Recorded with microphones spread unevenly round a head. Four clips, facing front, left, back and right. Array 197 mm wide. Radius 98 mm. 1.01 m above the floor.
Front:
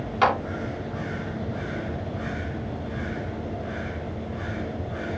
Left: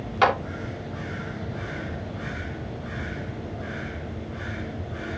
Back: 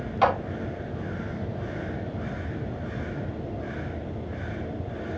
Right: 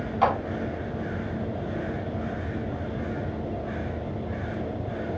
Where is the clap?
70° left, 3.5 m.